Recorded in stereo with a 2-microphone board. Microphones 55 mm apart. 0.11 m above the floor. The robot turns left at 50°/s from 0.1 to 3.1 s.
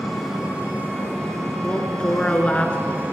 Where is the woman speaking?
20° left (ahead or behind), 1.3 m.